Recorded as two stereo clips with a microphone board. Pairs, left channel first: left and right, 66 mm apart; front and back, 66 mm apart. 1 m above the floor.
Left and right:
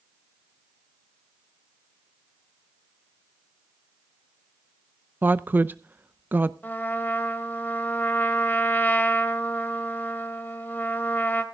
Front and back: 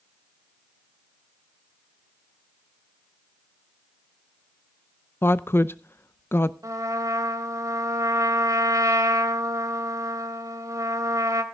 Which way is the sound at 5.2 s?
40° right.